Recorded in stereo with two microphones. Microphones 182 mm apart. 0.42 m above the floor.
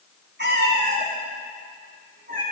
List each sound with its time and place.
0.4 s a cat meowing: 75° right (ahead or behind), 2 m; by 2.4 s 50° right (ahead or behind), 3.5 m